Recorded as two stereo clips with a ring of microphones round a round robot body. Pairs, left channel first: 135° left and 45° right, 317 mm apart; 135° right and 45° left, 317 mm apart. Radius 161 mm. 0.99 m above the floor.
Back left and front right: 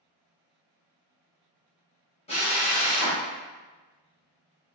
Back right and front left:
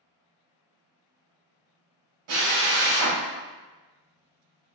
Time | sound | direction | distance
2.3 | a drill | 65° left | 0.8 m